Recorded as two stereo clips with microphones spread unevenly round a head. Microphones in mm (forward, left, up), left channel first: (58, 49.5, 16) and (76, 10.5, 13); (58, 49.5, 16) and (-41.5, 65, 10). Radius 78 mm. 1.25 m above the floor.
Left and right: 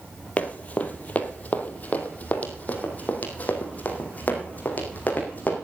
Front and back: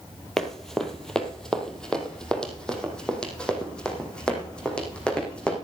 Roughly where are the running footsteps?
Left.